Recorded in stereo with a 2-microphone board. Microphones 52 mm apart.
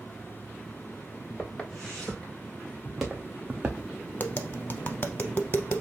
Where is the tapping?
40° left (ahead or behind), 0.6 m.